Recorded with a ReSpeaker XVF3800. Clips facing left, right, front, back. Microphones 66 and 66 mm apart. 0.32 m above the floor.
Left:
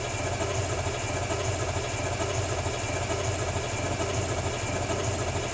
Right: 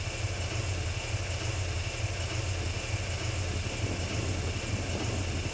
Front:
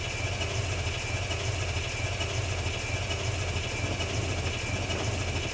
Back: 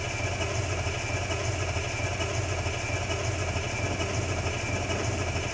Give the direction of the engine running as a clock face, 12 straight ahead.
8 o'clock.